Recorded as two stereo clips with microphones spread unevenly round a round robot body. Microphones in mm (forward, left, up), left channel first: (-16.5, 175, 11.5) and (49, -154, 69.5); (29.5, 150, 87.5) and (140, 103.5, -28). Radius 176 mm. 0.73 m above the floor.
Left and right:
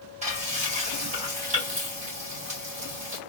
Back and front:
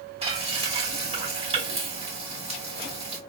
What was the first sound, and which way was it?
Frying, 5° right.